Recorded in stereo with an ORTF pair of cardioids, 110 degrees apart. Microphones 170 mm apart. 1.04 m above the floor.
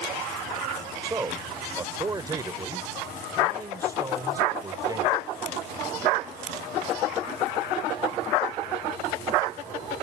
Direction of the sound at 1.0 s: 20° right.